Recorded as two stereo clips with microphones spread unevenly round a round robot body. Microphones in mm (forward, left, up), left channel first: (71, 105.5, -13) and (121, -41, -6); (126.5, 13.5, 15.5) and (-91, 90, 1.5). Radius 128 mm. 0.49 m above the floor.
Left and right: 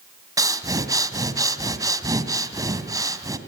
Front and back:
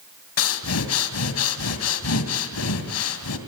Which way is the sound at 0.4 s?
5° right.